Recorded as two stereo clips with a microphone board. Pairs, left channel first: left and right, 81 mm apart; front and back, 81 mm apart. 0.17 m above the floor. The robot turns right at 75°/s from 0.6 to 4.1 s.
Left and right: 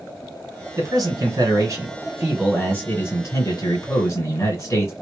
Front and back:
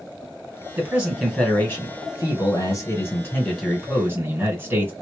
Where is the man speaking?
115° right, 2.5 m; by 4.9 s 135° left, 2.5 m.